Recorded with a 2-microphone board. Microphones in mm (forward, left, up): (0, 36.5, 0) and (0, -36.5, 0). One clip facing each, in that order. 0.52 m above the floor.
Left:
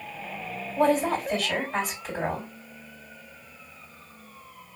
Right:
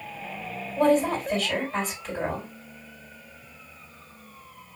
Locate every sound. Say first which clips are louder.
0.8 s a woman speaking: right 1 dB; 5° left (ahead or behind), 2.5 m